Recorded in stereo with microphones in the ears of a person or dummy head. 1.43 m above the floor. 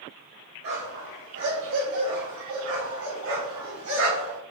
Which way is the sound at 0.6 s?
60° right (ahead or behind).